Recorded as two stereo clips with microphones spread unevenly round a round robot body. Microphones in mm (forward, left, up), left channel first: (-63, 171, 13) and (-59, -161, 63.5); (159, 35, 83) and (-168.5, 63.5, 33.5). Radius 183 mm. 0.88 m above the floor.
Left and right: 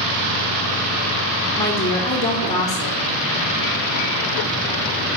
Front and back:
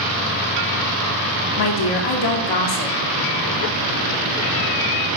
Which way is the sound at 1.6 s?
10° left.